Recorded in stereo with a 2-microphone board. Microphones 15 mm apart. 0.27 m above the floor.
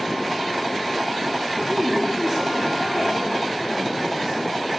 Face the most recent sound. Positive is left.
turn(degrees=30)  # may be behind; listen again after turning